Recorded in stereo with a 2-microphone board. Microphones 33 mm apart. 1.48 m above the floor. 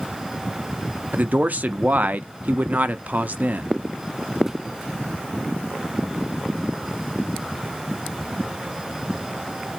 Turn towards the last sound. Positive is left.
turn(degrees=-55)  # may be behind; listen again after turning